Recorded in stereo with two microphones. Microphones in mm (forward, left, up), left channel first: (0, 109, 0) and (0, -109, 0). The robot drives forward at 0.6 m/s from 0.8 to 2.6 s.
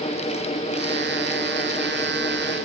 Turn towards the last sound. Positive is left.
No sound to turn to.